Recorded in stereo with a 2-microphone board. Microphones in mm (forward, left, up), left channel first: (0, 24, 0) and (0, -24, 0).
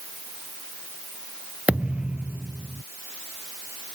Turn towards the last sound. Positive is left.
turn(degrees=-30)  # may be behind; listen again after turning